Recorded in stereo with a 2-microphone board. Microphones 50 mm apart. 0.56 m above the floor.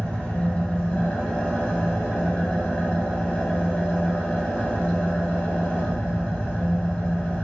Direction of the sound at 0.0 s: 30° left (ahead or behind).